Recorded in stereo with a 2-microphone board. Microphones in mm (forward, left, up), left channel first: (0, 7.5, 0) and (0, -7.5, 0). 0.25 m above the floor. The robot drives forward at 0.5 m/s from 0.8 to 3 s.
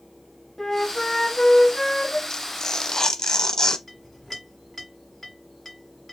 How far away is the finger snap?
I don't hear a finger snap.